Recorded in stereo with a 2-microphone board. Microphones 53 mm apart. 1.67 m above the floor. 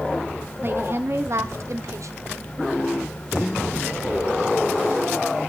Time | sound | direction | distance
0.6 | a woman speaking | 45° right (ahead or behind) | 1.4 m